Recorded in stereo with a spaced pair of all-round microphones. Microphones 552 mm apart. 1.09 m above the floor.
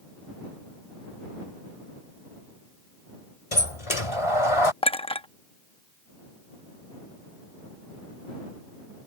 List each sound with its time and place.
3.5 s a sliding door: 75° left (ahead or behind)
4.8 s a clink: 10° left (ahead or behind)